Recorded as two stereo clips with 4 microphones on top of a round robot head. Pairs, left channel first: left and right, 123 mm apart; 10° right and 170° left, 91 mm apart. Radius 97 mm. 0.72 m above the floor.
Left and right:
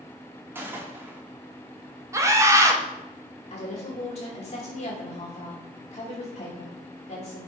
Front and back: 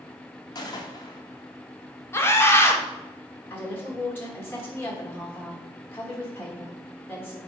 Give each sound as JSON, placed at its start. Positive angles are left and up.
{"t": 0.6, "sound": "a gunshot", "azimuth_deg": -25, "distance_m": 1.2}
{"t": 2.1, "sound": "a scream", "azimuth_deg": -45, "distance_m": 1.3}
{"t": 3.5, "sound": "a woman speaking", "azimuth_deg": 55, "distance_m": 2.5}